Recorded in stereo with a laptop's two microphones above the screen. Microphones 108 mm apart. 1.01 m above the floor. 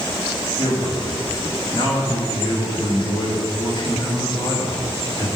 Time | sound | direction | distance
0.6 | a man speaking | 45° left (ahead or behind) | 2.5 m